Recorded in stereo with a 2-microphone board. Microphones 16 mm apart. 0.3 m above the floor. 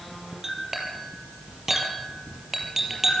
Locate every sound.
0.4 s a clink: 15° right (ahead or behind), 5 m